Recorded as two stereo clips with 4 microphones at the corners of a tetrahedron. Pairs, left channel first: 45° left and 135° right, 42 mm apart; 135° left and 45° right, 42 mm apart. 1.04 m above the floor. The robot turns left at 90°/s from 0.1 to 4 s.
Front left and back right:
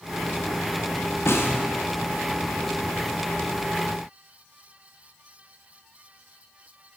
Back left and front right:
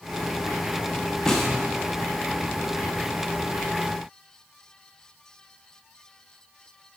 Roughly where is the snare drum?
Ahead left.